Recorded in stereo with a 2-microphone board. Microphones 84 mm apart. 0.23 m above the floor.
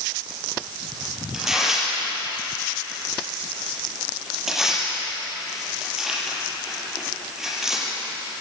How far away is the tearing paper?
About 7 m.